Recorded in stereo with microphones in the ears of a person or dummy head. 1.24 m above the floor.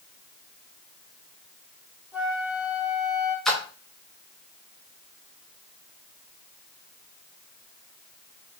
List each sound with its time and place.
2.1 s a flute: 10° right (ahead or behind), 1.9 m
3.5 s a splash: centre (ahead or behind), 0.6 m